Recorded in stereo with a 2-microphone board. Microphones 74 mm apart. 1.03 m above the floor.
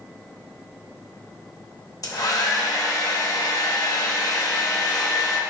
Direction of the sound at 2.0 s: 55° left (ahead or behind).